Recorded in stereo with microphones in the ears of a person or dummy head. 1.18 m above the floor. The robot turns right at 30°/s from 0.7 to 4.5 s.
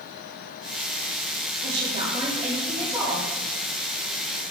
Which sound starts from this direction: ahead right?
A woman speaking, at 1.6 s.